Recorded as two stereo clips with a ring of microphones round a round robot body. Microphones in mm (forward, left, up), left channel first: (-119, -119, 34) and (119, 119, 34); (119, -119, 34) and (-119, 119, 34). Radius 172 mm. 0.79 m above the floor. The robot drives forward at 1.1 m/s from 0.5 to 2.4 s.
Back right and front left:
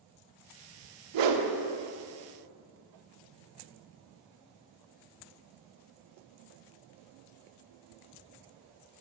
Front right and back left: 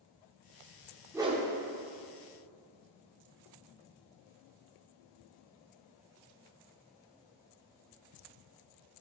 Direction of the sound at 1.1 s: 50° left.